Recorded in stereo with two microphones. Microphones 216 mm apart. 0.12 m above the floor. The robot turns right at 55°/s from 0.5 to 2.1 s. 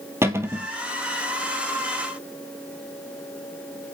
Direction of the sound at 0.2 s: 10° right (ahead or behind).